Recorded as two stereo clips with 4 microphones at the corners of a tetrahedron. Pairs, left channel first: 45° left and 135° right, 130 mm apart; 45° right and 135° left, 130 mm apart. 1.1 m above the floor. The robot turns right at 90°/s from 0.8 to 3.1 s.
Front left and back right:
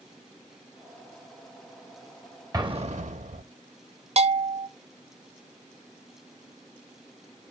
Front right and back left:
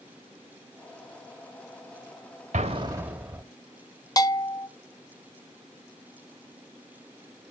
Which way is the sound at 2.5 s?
165° left.